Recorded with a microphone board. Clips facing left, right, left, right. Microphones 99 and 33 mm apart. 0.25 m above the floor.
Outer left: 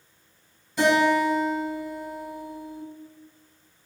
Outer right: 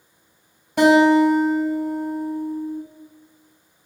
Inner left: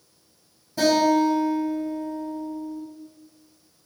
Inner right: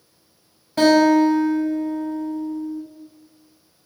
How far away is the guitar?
About 1.4 m.